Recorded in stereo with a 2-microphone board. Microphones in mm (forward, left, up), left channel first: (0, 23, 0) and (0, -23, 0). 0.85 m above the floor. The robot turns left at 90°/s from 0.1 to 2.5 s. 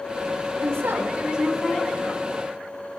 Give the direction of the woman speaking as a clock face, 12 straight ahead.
3 o'clock.